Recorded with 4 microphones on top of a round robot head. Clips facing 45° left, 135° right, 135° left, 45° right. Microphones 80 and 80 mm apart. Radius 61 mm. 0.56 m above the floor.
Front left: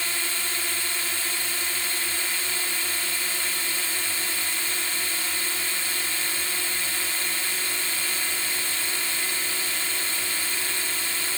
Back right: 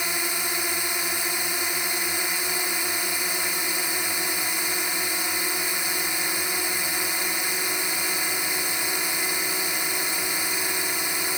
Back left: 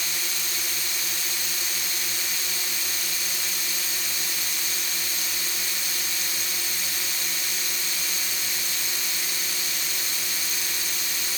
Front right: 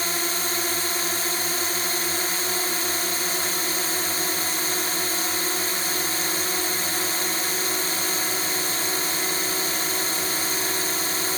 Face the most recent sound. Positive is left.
turn(degrees=-70)